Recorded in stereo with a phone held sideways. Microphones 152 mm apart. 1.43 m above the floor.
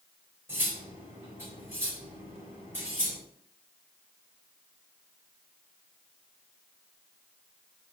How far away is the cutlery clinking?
About 5 m.